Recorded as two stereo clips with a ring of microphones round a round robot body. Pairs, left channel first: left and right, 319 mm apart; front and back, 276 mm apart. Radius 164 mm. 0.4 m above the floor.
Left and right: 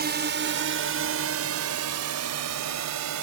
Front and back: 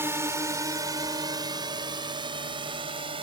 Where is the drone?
105° right; by 3.2 s 110° right.